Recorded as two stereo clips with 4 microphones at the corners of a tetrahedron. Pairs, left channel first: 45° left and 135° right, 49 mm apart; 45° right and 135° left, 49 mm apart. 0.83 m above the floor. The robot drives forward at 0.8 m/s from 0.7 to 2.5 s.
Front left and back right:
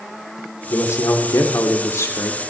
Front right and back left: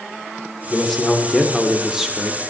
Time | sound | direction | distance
0.7 | a man speaking | 35° left | 3 m